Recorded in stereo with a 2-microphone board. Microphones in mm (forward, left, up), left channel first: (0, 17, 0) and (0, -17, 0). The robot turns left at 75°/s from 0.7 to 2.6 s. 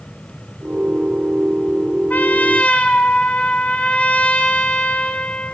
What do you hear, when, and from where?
2.1 s a trumpet: 80° left, 1.0 m; by 5.5 s 45° left, 1.0 m